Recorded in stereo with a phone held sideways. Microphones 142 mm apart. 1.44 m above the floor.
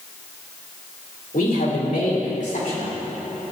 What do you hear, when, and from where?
1.3 s a man speaking: 80° left, 2.5 m; by 2.9 s 60° left (ahead or behind), 4 m